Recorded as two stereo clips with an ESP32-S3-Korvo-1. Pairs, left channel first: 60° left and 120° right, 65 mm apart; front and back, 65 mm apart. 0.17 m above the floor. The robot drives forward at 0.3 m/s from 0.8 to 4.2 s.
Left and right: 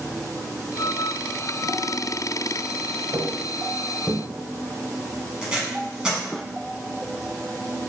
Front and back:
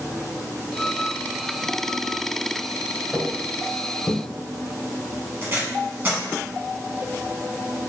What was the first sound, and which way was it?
Footsteps, 80° right.